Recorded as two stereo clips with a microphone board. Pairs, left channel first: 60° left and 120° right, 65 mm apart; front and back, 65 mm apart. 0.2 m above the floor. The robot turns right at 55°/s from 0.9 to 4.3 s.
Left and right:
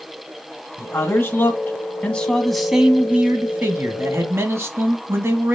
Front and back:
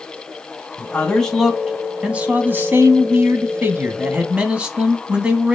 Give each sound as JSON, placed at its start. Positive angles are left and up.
{"t": 0.8, "sound": "a man speaking", "azimuth_deg": 55, "distance_m": 1.6}